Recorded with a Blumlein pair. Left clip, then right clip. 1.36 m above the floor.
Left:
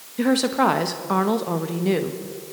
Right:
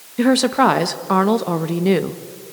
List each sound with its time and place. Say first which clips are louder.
0.2 s a woman speaking: right 5 dB; 15° right, 1.1 m